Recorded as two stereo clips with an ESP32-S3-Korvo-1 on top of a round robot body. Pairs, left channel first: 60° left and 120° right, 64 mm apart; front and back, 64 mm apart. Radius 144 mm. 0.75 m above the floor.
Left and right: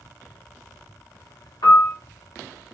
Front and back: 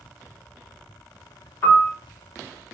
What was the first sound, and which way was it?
A piano, 55° left.